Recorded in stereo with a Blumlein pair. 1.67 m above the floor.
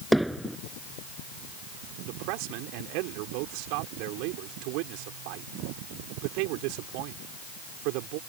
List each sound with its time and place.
0.1 s hammering: 5° right
2.0 s a man speaking: 45° right